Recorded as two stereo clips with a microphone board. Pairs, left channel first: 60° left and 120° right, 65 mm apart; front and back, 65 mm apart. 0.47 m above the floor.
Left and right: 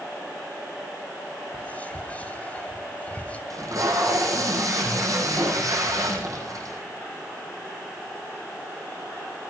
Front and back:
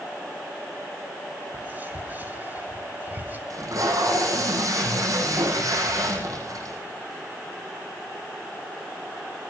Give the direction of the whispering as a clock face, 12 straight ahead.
8 o'clock.